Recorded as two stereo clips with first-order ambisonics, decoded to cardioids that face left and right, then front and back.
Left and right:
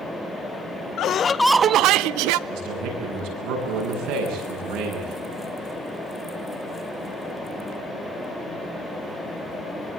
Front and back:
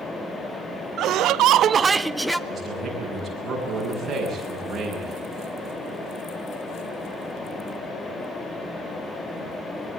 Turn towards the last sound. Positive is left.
turn(degrees=-100)